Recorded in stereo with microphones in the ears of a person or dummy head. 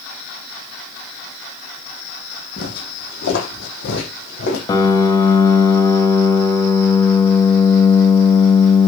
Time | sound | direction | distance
2.6 | footsteps | 60° left (ahead or behind) | 4.5 m
4.7 | a piano | 20° left (ahead or behind) | 1.4 m